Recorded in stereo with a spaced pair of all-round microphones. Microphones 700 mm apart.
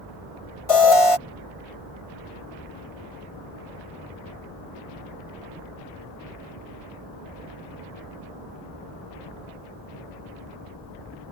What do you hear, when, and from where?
0.7 s an alarm: 50° left (ahead or behind)